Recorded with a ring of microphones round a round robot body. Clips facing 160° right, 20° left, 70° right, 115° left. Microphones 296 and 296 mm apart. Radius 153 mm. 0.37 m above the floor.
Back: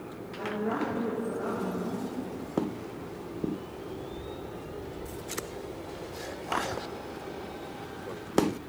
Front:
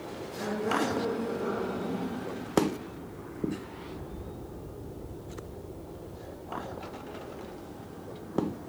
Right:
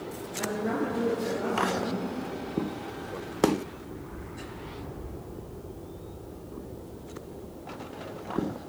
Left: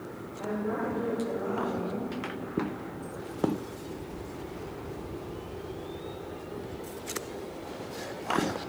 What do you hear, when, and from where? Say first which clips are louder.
0.4 s a woman speaking: front 1 dB, right 2 dB; 65° right, 6 m